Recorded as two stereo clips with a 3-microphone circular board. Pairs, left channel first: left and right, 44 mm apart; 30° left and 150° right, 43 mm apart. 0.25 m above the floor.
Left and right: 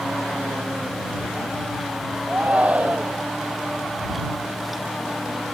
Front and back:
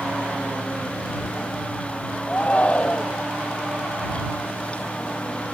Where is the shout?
30° right.